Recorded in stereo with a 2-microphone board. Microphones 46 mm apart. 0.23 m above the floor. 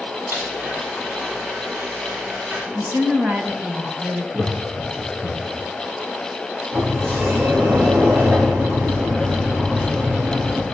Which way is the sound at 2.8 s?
45° right (ahead or behind).